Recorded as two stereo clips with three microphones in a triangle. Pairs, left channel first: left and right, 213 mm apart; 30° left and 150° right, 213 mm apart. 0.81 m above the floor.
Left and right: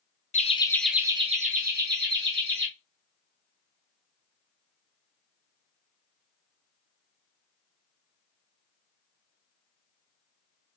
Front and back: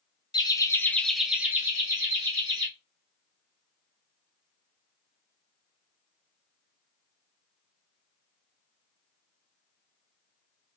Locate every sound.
0.3 s laughter: 85° left, 0.6 m; by 2.7 s 80° right, 1.3 m